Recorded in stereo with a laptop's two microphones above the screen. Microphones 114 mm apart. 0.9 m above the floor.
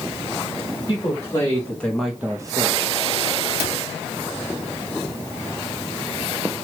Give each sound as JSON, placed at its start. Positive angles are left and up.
{"t": 0.9, "sound": "a man speaking", "side_deg": 35, "distance_m": 1.5}
{"t": 3.6, "sound": "a cupboard door", "side_deg": -65, "distance_m": 1.1}